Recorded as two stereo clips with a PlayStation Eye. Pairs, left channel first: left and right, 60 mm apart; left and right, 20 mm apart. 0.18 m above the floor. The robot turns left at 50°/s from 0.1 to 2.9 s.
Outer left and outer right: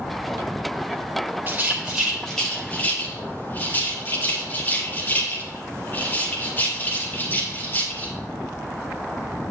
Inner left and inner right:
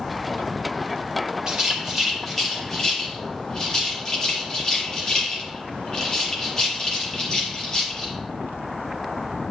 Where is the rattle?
35° right (ahead or behind), 5 m; by 8.1 s 35° left (ahead or behind), 5 m.